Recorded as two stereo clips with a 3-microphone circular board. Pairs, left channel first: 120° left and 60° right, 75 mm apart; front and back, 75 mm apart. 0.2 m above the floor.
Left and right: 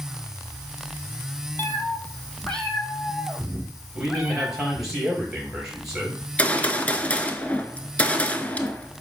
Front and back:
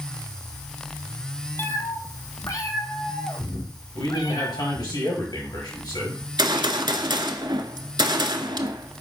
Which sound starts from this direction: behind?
A gunshot, at 6.2 s.